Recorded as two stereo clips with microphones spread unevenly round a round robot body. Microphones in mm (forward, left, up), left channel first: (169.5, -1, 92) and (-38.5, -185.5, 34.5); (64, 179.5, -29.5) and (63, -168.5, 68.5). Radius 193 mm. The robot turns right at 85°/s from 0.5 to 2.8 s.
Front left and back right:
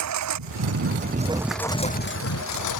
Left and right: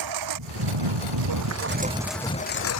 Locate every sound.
0.0 s a lawn mower: 125° right; by 2.8 s 50° left